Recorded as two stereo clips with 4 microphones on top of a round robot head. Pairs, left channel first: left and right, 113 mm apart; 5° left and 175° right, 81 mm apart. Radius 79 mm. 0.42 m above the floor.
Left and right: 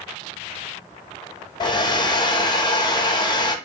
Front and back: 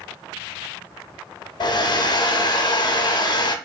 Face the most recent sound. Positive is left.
turn(degrees=40)